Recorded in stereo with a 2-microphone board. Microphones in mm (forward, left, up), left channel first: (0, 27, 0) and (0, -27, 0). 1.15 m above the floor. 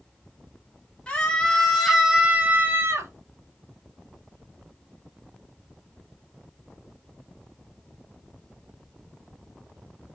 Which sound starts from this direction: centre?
A scream, at 1.1 s.